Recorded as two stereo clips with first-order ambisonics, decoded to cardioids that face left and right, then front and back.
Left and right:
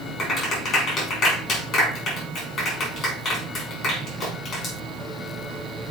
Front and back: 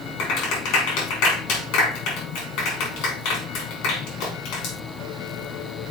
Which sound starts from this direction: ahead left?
A clap, at 0.2 s.